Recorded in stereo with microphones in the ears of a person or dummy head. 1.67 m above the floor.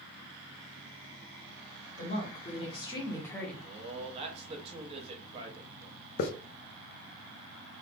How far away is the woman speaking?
About 1.4 m.